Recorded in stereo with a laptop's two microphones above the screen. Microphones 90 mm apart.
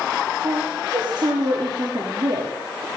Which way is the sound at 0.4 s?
55° right (ahead or behind).